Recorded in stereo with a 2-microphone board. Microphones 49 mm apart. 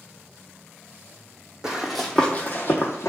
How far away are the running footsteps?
About 0.6 m.